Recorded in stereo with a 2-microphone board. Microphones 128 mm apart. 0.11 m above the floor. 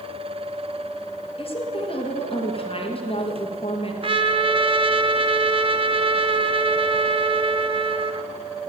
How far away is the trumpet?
About 0.6 m.